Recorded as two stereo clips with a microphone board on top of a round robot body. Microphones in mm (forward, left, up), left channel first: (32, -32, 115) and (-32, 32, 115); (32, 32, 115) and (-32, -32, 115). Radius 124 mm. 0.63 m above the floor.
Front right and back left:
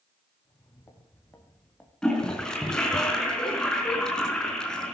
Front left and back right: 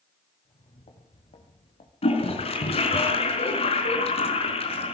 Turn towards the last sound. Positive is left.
turn(degrees=40)